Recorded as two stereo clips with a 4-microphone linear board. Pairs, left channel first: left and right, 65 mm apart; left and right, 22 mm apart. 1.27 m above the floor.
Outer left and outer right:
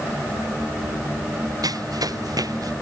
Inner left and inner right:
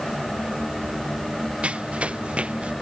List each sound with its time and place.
1.6 s running footsteps: 70° right (ahead or behind)